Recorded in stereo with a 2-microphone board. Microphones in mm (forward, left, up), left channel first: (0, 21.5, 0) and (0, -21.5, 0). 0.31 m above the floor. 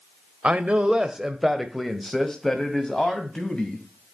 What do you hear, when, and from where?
0.4 s a man speaking: 30° right (ahead or behind), 1.0 m; by 3.8 s 20° left (ahead or behind), 2.0 m